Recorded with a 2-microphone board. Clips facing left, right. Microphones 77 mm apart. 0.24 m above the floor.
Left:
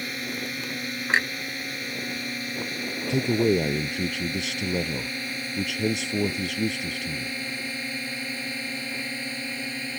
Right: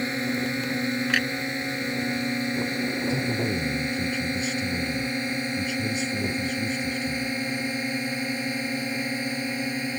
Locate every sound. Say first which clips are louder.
0.0 s a drone: right 6 dB; 25° right (ahead or behind); by 10.0 s 20° right (ahead or behind)
1.1 s a clunk: left 4 dB; 30° left (ahead or behind)
3.1 s a man speaking: left 4 dB; 65° left (ahead or behind)